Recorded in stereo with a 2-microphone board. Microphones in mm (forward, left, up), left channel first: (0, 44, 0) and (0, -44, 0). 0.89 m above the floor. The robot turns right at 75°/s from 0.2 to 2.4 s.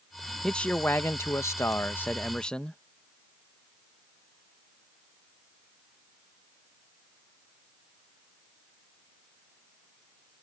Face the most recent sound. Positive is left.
turn(degrees=160)